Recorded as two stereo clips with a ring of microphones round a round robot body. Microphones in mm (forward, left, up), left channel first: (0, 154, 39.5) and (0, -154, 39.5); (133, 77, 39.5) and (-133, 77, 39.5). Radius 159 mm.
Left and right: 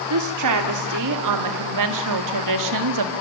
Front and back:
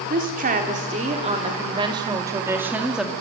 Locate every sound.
0.1 s a woman speaking: 120° right, 3 m; by 3.1 s 90° right, 2 m